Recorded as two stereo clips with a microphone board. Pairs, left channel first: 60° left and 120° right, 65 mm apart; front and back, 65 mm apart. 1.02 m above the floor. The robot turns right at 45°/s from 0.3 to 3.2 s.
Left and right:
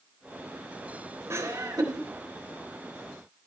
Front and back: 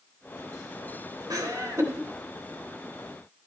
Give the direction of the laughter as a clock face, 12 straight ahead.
6 o'clock.